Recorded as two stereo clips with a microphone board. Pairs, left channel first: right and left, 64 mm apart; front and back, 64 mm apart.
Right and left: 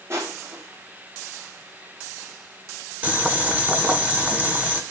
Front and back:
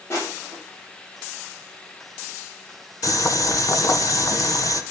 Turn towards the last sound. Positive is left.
turn(degrees=20)